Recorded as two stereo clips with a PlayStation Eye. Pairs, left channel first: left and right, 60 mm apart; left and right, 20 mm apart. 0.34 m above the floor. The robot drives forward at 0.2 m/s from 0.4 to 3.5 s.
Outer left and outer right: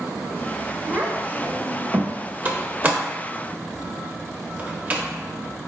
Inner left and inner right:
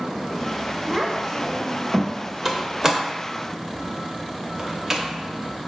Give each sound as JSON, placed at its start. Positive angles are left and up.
{"t": 0.9, "sound": "a child speaking", "side_deg": -30, "distance_m": 0.6}
{"t": 2.5, "sound": "a door slam", "side_deg": -25, "distance_m": 0.6}